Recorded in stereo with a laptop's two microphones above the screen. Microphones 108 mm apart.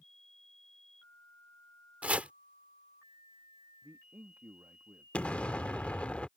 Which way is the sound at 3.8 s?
30° right (ahead or behind).